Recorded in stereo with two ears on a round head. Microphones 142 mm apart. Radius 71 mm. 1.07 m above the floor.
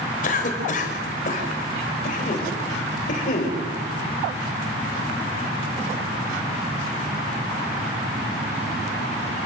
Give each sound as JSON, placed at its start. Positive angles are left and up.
{"t": 0.2, "sound": "a cough", "side_deg": 50, "distance_m": 4.5}